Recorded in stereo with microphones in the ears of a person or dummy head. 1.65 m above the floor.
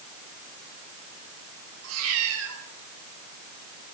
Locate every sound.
1.8 s a cat meowing: 80° right, 6.5 m